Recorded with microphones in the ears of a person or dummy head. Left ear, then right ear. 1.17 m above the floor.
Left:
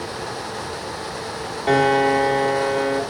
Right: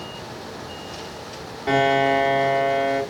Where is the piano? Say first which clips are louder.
Left 1 dB; 10° left (ahead or behind), 1.3 m.